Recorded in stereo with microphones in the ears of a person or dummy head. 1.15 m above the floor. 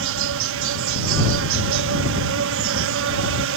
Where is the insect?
65° right (ahead or behind).